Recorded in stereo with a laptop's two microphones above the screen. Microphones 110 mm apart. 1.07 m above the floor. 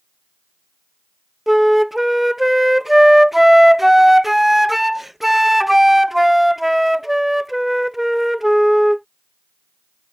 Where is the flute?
Centre (ahead or behind).